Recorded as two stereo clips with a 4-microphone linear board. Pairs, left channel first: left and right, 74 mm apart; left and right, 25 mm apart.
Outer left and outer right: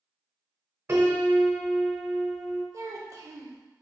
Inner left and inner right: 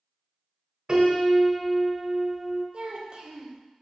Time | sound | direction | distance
0.9 | a piano | 35° right (ahead or behind) | 0.8 m
2.7 | a child speaking | 45° right (ahead or behind) | 0.6 m